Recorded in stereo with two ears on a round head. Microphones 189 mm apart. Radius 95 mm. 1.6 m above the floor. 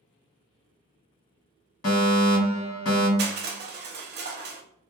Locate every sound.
1.8 s a fire alarm: 70° left (ahead or behind), 1.6 m
3.2 s crushing: 50° right (ahead or behind), 0.6 m